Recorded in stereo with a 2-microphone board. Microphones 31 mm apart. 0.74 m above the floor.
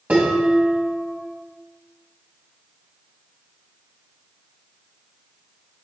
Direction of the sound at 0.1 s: 50° right (ahead or behind).